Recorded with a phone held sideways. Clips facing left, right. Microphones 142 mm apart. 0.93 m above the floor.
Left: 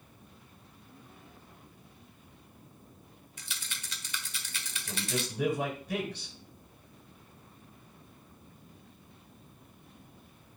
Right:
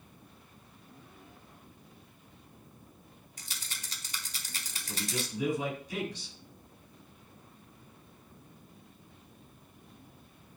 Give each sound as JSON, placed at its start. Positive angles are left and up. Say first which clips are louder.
{"t": 3.4, "sound": "a rattle", "louder": "left 2 dB", "side_deg": -40, "distance_m": 1.2}
{"t": 4.8, "sound": "a man speaking", "louder": "left 2 dB", "side_deg": 65, "distance_m": 6.5}